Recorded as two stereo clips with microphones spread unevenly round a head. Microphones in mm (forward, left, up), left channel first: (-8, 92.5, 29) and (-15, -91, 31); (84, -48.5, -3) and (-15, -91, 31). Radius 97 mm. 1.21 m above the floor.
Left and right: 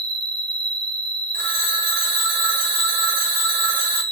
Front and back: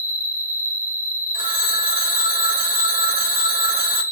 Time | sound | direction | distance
0.0 | an insect | 25° right | 1.2 m
1.3 | a phone ringing | 125° right | 1.9 m